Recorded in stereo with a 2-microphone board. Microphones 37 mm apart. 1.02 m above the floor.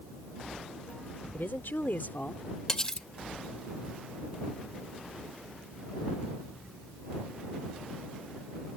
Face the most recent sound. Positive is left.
turn(degrees=20)  # may be behind; listen again after turning